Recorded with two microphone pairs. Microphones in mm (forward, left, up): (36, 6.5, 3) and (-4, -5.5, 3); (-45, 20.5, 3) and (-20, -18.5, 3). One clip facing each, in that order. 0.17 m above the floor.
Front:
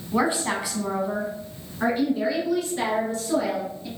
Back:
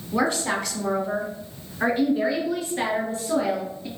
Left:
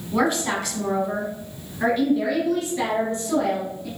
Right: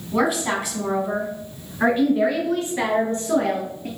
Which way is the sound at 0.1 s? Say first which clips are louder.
Even, right 1 dB; 25° left.